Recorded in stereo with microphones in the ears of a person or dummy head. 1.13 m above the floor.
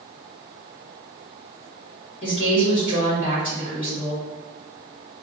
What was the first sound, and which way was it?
A woman speaking, 40° left (ahead or behind).